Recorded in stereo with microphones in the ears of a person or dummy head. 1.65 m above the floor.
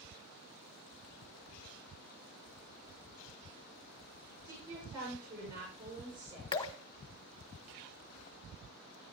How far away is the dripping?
About 1.0 m.